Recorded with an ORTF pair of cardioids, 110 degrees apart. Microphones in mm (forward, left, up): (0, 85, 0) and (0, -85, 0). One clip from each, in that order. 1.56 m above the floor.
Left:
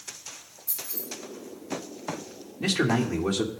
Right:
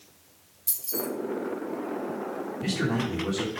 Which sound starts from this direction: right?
Keys jangling, at 0.7 s.